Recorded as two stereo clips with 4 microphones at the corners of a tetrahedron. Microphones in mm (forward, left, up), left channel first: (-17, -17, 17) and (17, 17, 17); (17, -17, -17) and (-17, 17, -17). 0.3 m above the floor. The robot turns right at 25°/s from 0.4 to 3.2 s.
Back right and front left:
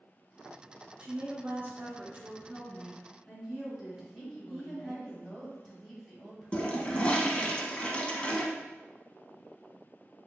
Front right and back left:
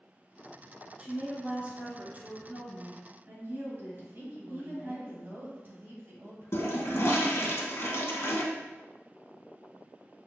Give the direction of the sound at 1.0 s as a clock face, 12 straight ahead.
10 o'clock.